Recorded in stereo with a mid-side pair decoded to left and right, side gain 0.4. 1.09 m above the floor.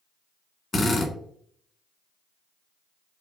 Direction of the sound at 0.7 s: 35° left.